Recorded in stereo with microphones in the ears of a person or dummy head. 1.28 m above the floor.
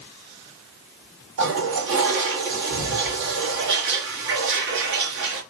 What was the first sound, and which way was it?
A toilet flushing, 70° right (ahead or behind).